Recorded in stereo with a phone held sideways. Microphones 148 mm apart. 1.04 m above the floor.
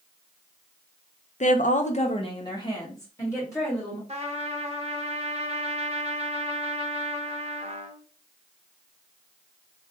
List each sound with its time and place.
1.4 s a woman speaking: 55° left (ahead or behind), 0.6 m; by 4.0 s 15° left (ahead or behind), 2.5 m
4.1 s a trumpet: 45° right (ahead or behind), 0.7 m